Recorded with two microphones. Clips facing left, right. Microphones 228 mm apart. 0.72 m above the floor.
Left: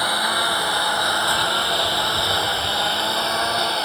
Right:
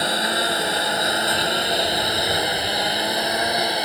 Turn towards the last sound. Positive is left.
turn(degrees=-15)  # may be behind; listen again after turning